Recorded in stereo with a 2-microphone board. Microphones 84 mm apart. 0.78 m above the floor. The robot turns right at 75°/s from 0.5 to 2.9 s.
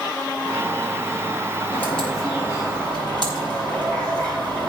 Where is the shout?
No shout in this recording.